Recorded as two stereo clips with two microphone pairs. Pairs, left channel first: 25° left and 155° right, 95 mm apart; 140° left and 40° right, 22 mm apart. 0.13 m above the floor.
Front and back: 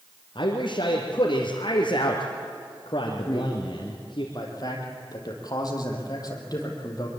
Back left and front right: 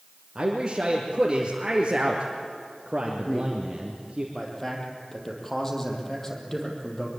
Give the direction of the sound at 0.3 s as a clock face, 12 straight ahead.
11 o'clock.